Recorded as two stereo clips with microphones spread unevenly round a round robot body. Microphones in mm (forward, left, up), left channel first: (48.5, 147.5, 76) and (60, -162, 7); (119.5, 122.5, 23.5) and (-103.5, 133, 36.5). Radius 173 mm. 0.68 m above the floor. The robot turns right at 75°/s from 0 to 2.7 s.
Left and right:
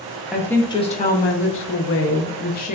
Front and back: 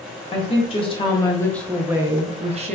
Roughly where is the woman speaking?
Ahead right.